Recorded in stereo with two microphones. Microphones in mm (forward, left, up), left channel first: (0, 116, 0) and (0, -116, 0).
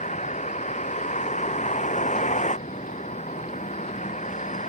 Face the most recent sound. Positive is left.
turn(degrees=30)  # may be behind; listen again after turning